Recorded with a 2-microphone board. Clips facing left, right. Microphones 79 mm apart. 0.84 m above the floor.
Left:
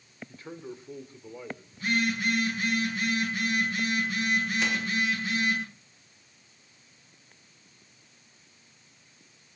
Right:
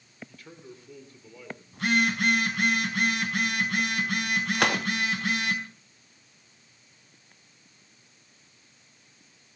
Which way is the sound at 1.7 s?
75° right (ahead or behind).